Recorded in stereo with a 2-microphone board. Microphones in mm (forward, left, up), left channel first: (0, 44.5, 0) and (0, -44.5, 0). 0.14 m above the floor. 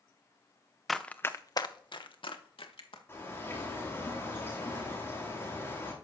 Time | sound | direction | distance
0.9 | running footsteps | centre (ahead or behind) | 0.7 m
3.1 | a bird | 25° left (ahead or behind) | 5 m